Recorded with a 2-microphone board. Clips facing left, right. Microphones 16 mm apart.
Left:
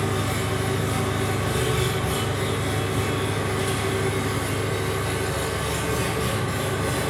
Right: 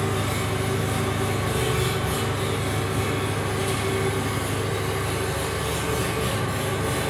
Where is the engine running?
50° left (ahead or behind), 1.5 m.